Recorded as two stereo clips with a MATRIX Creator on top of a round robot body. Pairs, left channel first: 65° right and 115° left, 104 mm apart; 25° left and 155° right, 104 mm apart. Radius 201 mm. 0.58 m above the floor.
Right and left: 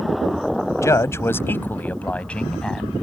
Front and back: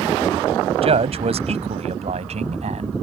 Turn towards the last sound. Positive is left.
turn(degrees=-155)